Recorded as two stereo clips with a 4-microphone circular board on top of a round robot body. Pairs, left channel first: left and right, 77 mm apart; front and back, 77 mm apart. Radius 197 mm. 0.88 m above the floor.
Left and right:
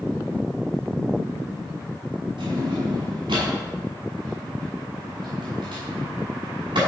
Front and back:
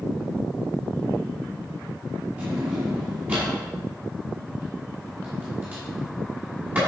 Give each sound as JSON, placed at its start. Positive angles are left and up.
{"t": 2.4, "sound": "a drawer", "azimuth_deg": -110, "distance_m": 6.0}